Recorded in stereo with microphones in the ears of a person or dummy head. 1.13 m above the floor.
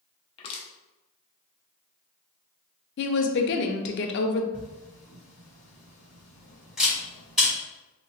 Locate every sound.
0.4 s crushing: 25° left (ahead or behind), 0.6 m
3.0 s a woman speaking: 55° left (ahead or behind), 0.5 m
4.5 s a camera shutter: 5° right (ahead or behind), 1.9 m